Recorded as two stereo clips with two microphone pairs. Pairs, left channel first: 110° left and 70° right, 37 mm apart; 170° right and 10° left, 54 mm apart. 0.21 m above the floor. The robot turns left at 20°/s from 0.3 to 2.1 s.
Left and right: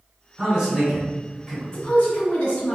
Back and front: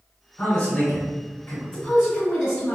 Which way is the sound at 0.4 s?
115° right.